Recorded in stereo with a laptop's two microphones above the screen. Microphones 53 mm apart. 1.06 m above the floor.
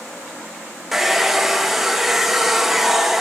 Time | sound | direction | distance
0.9 | a hair dryer | 5° right (ahead or behind) | 0.5 m